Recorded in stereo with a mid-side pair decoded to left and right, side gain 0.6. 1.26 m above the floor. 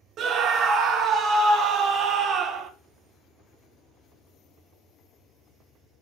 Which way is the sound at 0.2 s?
50° right.